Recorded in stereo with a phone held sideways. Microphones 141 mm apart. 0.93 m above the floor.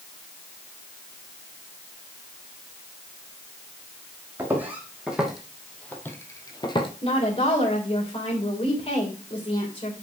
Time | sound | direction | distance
4.4 | footsteps | 15° right (ahead or behind) | 2.5 m
7.0 | a woman speaking | 40° left (ahead or behind) | 3 m